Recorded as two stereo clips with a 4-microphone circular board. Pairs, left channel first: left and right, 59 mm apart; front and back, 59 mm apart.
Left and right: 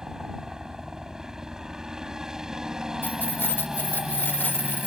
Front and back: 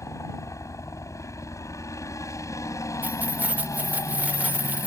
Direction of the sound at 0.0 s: 10° right.